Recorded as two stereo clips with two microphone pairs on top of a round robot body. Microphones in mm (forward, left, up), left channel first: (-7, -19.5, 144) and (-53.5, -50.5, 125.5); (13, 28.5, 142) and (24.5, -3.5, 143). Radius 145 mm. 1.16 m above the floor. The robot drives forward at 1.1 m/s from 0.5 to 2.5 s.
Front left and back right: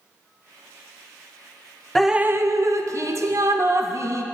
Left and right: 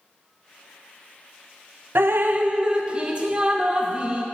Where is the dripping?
60° right, 0.5 m; by 4.2 s 130° right, 0.6 m.